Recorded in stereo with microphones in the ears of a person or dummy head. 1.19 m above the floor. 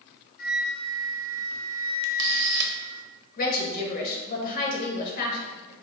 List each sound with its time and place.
0.4 s a flute: 45° left (ahead or behind), 0.6 m
2.0 s a camera shutter: 60° right (ahead or behind), 0.7 m
3.4 s a woman speaking: 45° left (ahead or behind), 1.1 m